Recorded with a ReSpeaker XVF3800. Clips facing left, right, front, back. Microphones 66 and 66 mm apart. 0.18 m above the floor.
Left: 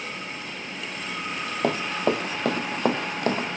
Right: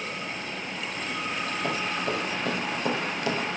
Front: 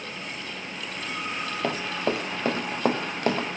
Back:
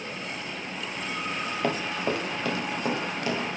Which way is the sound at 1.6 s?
85° left.